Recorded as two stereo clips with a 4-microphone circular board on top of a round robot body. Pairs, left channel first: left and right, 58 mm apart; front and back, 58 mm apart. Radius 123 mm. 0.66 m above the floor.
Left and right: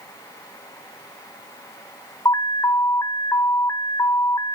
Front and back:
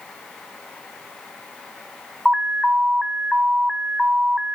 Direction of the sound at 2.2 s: 95° left.